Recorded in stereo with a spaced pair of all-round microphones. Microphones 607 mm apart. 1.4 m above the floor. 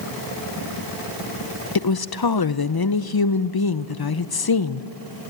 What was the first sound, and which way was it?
A woman speaking, 40° left (ahead or behind).